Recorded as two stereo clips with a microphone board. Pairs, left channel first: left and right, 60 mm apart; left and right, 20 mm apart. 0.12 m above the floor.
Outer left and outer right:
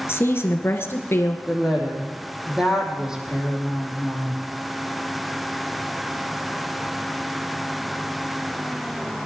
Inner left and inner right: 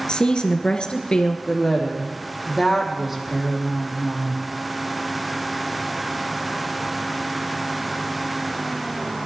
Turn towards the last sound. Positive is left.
turn(degrees=-10)  # may be behind; listen again after turning